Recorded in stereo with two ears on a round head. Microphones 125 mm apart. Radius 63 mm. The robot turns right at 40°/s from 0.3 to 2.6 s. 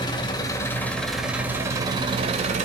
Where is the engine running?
145° left, 2.5 m; by 2.6 s 120° right, 2.5 m.